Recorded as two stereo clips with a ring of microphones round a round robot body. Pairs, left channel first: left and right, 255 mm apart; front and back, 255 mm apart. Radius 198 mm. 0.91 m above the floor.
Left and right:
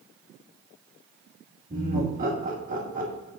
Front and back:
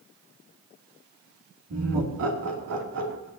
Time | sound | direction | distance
1.7 | laughter | 155° right | 2 m